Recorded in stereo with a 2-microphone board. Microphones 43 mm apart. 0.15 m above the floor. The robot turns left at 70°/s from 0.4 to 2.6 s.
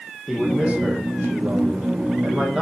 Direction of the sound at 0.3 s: 10° right.